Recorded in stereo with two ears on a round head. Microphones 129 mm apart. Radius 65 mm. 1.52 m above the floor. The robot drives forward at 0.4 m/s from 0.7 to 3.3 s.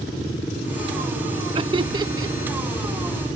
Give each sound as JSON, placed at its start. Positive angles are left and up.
{"t": 1.6, "sound": "laughter", "side_deg": -35}